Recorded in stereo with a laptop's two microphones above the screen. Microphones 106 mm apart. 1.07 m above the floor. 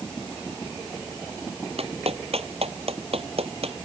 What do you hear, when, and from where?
1.8 s a clap: 65° right (ahead or behind)